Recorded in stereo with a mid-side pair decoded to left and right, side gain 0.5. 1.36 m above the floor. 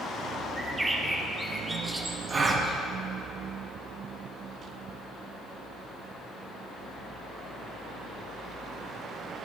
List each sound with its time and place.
0.6 s a bird: 15° right, 1.3 m
2.3 s a gasp: 45° right, 1.4 m